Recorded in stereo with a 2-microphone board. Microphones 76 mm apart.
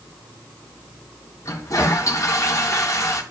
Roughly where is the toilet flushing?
Left.